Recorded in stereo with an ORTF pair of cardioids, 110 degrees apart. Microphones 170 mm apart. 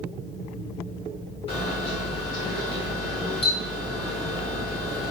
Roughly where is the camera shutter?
Ahead left.